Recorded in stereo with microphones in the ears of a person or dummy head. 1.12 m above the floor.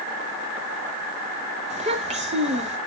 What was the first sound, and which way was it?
A child speaking, 30° right (ahead or behind).